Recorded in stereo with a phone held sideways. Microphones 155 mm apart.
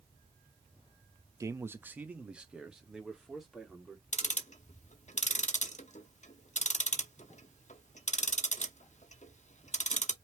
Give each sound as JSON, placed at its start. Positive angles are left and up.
{"t": 1.4, "sound": "a man speaking", "side_deg": -20, "distance_m": 0.7}
{"t": 4.1, "sound": "ticking", "side_deg": 50, "distance_m": 0.8}